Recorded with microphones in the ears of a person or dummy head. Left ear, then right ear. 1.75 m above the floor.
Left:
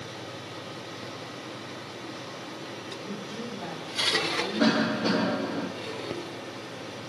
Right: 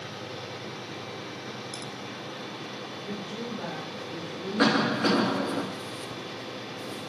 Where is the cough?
60° right (ahead or behind), 3 m.